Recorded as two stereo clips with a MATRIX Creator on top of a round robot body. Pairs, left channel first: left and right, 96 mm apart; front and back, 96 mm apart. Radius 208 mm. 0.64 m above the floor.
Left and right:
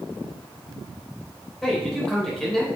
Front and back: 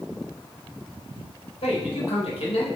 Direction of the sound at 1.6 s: 5° left.